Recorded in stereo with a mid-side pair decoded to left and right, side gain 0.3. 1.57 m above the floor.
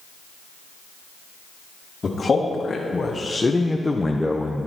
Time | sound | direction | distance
2.0 | a man speaking | 45° left | 2 m